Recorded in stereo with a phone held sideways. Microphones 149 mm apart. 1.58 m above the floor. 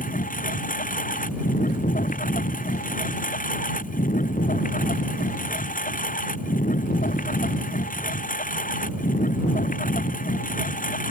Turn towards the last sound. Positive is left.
turn(degrees=65)  # may be behind; listen again after turning